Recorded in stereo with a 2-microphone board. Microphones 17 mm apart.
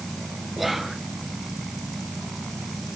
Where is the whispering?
10° right (ahead or behind), 1.8 m.